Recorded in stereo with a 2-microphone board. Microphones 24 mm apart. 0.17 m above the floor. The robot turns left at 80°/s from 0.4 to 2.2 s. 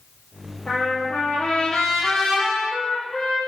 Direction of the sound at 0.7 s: 130° left.